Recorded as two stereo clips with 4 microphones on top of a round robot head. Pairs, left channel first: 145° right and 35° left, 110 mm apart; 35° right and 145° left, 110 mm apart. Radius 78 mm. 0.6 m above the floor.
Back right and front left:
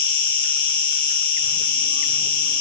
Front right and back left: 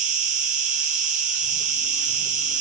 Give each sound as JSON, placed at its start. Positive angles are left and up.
{"t": 0.0, "sound": "an insect", "azimuth_deg": 165, "distance_m": 1.2}